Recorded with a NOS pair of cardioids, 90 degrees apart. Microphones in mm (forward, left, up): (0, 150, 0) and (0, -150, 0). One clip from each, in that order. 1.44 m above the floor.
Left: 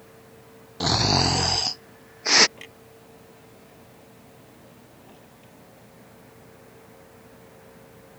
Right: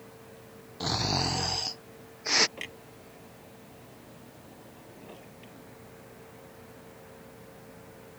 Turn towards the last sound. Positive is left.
turn(degrees=-35)